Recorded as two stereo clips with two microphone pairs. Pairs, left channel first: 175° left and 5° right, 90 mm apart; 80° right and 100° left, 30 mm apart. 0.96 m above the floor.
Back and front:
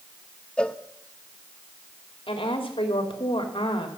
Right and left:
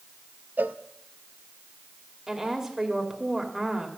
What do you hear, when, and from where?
0.6 s a cowbell: 95° left, 0.6 m
2.3 s a woman speaking: 175° left, 2.5 m